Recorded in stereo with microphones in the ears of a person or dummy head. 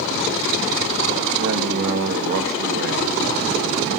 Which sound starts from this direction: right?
A man speaking, at 1.4 s.